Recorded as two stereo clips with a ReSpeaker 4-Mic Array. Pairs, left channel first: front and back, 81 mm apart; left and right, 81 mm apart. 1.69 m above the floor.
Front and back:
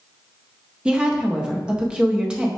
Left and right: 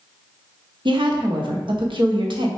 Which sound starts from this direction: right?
A woman speaking, at 0.8 s.